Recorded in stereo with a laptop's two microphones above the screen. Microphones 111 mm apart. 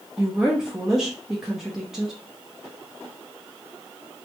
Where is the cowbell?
I don't hear a cowbell.